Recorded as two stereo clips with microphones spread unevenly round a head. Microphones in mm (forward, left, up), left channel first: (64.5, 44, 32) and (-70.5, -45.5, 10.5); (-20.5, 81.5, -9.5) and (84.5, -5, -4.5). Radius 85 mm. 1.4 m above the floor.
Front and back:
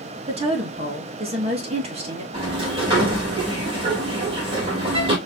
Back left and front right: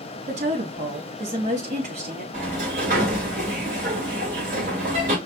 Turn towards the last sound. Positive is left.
turn(degrees=-90)